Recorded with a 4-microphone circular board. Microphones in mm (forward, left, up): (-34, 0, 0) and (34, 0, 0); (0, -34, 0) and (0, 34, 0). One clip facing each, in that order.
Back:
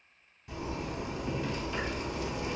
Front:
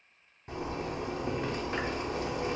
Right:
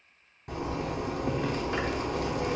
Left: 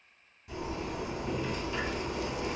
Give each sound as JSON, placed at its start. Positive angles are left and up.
{"t": 0.5, "sound": "a zipper", "azimuth_deg": -50, "distance_m": 0.6}